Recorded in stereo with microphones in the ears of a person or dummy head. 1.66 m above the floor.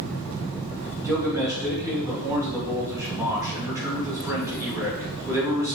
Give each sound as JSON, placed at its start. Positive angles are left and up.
{"t": 1.0, "sound": "a man speaking", "side_deg": -15, "distance_m": 3.0}